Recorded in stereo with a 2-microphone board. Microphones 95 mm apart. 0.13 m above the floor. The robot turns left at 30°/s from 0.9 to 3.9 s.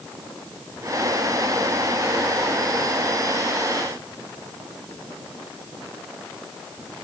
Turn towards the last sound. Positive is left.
No sound to turn to.